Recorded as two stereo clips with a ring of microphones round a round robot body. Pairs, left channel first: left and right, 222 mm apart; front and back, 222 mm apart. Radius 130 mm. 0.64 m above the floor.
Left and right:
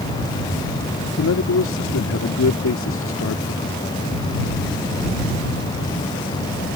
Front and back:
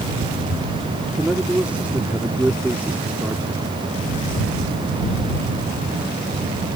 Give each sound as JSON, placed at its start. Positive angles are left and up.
{"t": 1.2, "sound": "a man speaking", "azimuth_deg": 95}